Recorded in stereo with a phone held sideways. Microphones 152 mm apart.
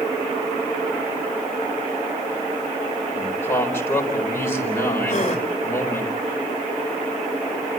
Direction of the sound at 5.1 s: 50° left (ahead or behind).